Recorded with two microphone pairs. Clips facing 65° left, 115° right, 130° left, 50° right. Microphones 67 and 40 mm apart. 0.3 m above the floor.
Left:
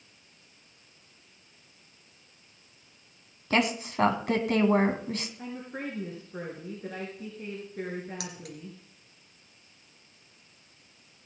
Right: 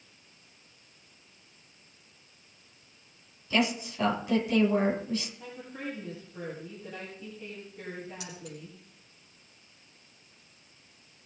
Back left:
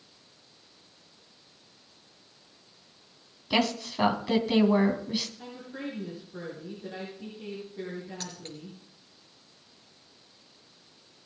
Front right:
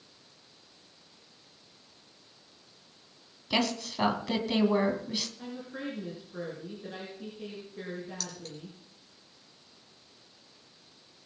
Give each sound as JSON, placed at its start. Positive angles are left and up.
{"t": 3.5, "sound": "a woman speaking", "azimuth_deg": 50, "distance_m": 2.5}
{"t": 5.4, "sound": "a woman speaking", "azimuth_deg": 35, "distance_m": 5.0}
{"t": 8.2, "sound": "keys jangling", "azimuth_deg": 75, "distance_m": 3.0}